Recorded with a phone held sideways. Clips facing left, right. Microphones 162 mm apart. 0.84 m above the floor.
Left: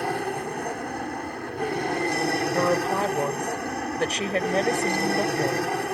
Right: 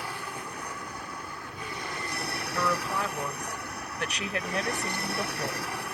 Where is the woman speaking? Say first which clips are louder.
Left 5 dB; 35° left (ahead or behind).